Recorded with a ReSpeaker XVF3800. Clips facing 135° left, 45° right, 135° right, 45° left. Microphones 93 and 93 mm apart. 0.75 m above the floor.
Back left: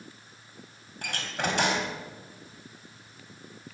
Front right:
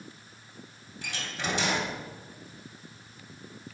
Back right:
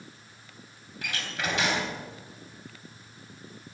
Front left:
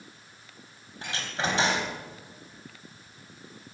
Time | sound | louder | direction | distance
1.0 | a door slam | back left 4 dB, front left 2 dB | 105° left | 3.5 m